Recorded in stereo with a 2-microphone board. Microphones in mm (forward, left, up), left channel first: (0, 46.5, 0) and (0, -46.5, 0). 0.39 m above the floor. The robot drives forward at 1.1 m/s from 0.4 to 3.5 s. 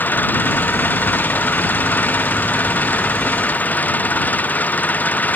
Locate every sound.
0.0 s an engine running: 20° left (ahead or behind)